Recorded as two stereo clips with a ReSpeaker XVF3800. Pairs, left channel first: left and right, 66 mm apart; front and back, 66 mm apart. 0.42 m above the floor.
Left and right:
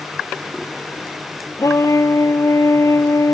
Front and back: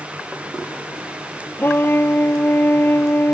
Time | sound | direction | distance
1.6 | a trumpet | 55° left | ?